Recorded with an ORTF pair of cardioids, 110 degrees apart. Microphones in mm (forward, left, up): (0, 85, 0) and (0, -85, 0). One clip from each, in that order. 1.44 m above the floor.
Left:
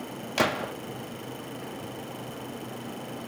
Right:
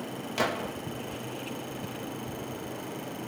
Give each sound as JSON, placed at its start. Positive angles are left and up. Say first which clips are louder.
{"t": 0.4, "sound": "a gunshot", "louder": "left 3 dB", "azimuth_deg": 30, "distance_m": 0.6}